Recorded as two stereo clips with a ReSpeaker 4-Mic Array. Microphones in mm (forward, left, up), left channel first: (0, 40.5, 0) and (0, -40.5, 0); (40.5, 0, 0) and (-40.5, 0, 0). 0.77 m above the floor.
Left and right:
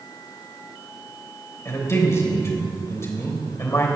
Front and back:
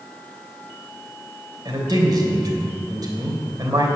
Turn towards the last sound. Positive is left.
turn(degrees=145)